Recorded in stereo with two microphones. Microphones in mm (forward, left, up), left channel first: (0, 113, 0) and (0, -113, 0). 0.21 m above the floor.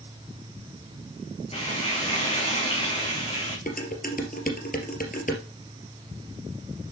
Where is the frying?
25° left (ahead or behind), 4 m.